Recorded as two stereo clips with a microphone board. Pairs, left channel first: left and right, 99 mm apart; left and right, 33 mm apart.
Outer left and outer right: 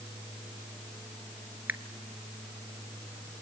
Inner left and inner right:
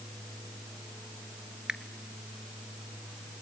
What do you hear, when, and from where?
1.7 s a finger snap: 20° right (ahead or behind), 1.0 m